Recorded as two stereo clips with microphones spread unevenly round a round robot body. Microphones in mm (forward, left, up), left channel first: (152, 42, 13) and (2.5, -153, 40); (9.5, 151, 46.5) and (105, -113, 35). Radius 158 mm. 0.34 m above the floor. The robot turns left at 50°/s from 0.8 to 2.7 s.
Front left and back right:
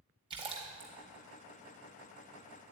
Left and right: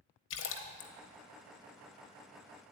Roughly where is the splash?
Behind left.